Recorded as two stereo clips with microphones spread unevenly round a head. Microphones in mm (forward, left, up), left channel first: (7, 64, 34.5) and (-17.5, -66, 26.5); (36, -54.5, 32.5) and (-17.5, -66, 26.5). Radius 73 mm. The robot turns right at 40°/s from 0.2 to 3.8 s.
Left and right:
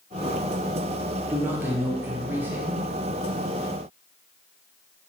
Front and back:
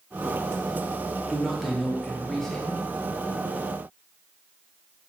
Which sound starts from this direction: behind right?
A man speaking, at 1.3 s.